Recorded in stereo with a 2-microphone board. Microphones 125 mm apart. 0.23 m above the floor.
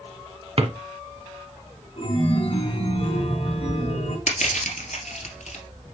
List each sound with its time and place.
0.6 s a drawer: 55° right (ahead or behind), 1.0 m
2.0 s a chime: 55° left (ahead or behind), 2.5 m
4.3 s crushing: 80° left, 2 m